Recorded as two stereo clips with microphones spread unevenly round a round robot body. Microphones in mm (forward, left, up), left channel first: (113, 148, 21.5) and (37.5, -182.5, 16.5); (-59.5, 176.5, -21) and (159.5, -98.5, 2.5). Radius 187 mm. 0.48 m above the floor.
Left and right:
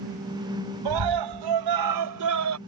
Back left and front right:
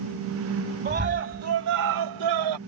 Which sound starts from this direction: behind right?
A scream, at 0.8 s.